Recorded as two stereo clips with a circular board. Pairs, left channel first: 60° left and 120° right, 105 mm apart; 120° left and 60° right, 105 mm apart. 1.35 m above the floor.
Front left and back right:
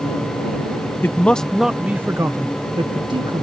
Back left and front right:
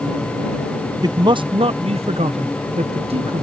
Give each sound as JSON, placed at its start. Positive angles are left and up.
{"t": 1.0, "sound": "a man speaking", "azimuth_deg": -10}